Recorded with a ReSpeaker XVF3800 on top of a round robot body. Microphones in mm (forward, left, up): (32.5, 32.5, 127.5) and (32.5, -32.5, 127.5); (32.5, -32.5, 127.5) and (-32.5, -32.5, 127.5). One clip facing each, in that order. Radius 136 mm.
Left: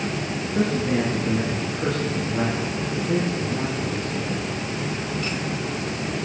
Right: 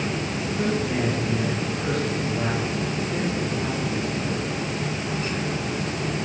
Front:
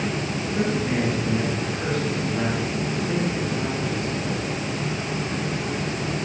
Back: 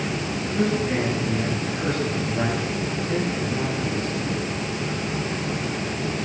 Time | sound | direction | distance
0.6 | a man speaking | 80° left | 9 m